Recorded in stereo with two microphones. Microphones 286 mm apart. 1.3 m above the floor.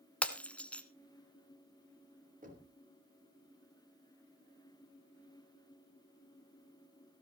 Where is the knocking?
30° right (ahead or behind), 3.5 m.